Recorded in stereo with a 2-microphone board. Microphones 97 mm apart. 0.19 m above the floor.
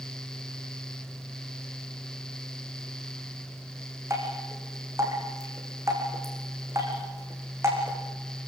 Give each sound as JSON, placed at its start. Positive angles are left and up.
{"t": 4.1, "sound": "dripping", "side_deg": -25, "distance_m": 6.5}